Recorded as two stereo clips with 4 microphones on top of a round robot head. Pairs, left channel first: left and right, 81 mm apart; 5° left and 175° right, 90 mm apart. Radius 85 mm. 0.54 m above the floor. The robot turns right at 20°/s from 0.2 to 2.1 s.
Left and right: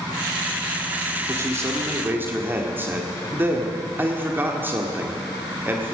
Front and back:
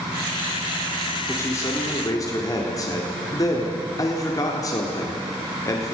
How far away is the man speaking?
About 1.8 m.